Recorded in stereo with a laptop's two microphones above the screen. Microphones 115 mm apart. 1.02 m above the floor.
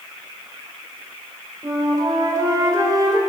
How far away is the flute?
About 1.9 m.